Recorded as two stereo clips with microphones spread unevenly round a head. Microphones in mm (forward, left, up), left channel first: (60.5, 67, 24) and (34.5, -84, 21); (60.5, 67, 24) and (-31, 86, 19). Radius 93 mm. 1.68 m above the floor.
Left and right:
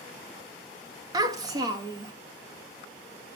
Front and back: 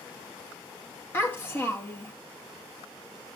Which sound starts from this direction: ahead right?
A child speaking, at 1.1 s.